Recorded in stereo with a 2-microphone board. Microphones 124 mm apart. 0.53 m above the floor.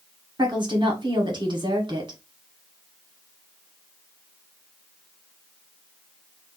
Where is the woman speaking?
40° right (ahead or behind), 1.2 m.